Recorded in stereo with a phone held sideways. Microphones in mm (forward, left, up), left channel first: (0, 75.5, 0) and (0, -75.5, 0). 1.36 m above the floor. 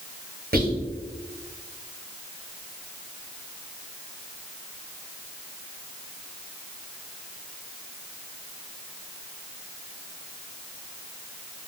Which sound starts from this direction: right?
Whispering, at 0.5 s.